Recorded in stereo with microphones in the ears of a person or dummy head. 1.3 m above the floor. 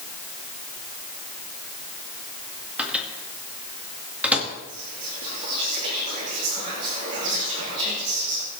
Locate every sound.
2.8 s a microwave: 10° right (ahead or behind), 2 m
4.7 s whispering: 45° right (ahead or behind), 3 m